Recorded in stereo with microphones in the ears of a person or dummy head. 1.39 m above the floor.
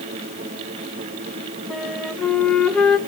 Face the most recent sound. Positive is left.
turn(degrees=5)  # may be behind; listen again after turning